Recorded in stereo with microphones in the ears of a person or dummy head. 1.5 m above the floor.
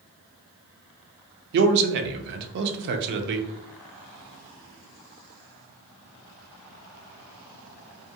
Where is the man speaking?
55° right (ahead or behind), 0.5 m.